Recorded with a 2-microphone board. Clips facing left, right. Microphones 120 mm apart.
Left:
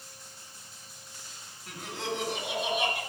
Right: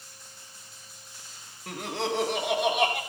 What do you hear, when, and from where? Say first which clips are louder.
1.7 s laughter: right 5 dB; 65° right (ahead or behind), 1.9 m; by 3.0 s 75° right (ahead or behind), 3 m